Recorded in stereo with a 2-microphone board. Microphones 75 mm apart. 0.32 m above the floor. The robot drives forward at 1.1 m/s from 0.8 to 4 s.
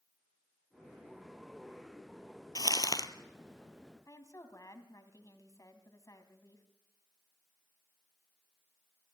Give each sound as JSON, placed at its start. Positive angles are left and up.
{"t": 2.5, "sound": "crumpling", "side_deg": 85, "distance_m": 1.1}
{"t": 4.1, "sound": "a woman speaking", "side_deg": 50, "distance_m": 2.5}